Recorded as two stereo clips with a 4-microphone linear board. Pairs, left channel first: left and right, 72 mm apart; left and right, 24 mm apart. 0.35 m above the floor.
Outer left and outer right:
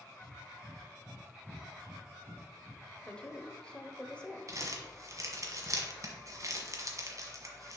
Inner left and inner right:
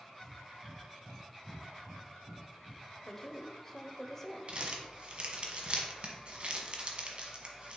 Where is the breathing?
50° right (ahead or behind), 0.9 m.